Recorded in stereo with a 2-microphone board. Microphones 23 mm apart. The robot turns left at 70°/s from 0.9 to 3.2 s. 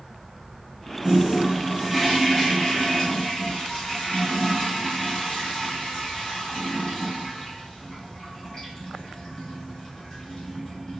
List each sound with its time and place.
1.0 s a toilet flushing: 130° right, 1.5 m; by 11.0 s 75° left, 1.5 m